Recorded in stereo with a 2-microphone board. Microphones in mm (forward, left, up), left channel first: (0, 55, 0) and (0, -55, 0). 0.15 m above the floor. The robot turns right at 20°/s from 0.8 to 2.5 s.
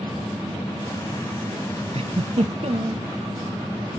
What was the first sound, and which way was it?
A giggle, 60° right (ahead or behind).